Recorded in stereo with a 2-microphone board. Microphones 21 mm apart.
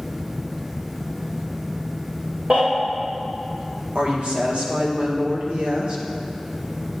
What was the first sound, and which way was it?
A baby crying, 65° right (ahead or behind).